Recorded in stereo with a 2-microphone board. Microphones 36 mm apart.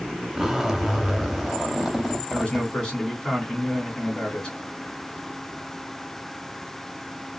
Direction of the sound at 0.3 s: 10° right (ahead or behind).